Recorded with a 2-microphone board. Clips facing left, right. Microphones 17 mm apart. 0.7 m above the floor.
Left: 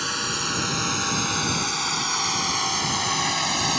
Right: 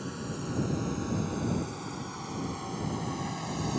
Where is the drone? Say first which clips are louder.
Left 12 dB; 80° left; by 3.8 s 50° left (ahead or behind).